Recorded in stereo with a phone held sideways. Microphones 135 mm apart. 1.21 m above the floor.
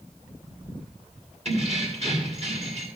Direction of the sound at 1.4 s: 50° right (ahead or behind).